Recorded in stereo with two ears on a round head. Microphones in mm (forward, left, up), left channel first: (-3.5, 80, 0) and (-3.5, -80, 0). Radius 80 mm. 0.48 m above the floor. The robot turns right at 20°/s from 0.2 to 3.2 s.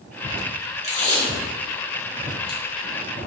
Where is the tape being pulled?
40° left (ahead or behind), 1.1 m; by 2.6 s 55° left (ahead or behind), 1.1 m.